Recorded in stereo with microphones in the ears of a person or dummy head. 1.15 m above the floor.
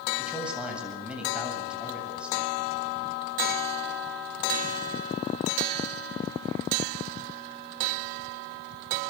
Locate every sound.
0.2 s a man speaking: 5° right (ahead or behind), 7 m